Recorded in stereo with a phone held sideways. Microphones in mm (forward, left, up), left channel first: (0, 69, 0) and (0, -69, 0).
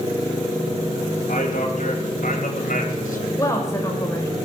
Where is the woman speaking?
20° left (ahead or behind), 4 m.